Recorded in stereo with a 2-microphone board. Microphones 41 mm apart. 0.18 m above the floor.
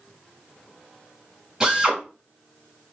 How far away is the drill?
About 1.9 m.